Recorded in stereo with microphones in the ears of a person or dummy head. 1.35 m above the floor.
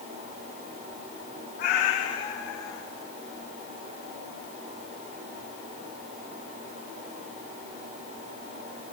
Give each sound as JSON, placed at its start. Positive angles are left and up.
{"t": 1.6, "sound": "a cat meowing", "side_deg": 40, "distance_m": 1.0}